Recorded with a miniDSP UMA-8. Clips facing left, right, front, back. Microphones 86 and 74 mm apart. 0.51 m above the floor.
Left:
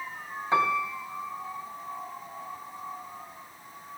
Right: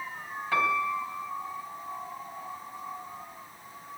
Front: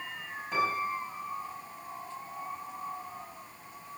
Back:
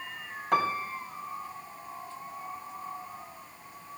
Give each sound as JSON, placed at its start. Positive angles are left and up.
{"t": 0.5, "sound": "a piano", "azimuth_deg": 160, "distance_m": 3.5}